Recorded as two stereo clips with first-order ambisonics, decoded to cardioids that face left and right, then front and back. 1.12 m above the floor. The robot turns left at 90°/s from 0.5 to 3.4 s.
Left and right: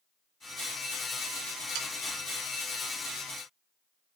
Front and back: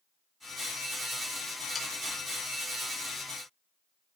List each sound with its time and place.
1.8 s sawing: 65° right, 1.2 m; by 1.9 s 75° right, 1.2 m